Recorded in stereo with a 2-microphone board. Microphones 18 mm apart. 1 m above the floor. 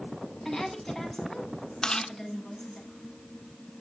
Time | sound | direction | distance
0.5 | a woman speaking | 15° left (ahead or behind) | 10 m
1.8 | chewing | 45° left (ahead or behind) | 1.7 m